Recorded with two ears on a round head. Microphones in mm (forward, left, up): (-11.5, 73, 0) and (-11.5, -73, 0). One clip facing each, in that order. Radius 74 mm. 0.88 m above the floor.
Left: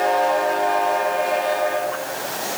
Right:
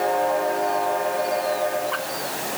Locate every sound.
Only background noise.